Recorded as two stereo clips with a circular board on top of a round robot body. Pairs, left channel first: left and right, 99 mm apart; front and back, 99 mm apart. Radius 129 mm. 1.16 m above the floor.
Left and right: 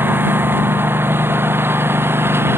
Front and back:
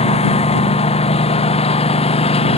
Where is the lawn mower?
20° right.